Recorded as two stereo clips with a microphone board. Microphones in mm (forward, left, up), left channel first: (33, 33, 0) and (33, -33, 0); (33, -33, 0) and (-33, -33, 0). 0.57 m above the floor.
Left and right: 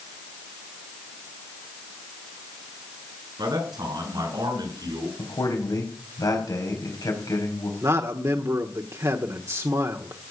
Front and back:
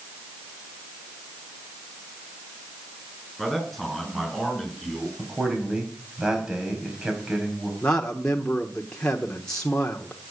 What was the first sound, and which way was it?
A man speaking, 95° right.